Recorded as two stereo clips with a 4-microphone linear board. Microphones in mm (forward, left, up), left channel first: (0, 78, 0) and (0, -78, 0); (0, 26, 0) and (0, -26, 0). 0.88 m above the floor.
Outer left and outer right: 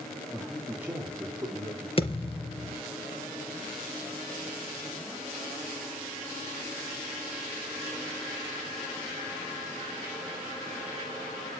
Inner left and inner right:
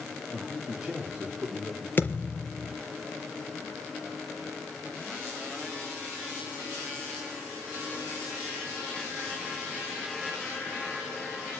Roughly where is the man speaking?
Centre.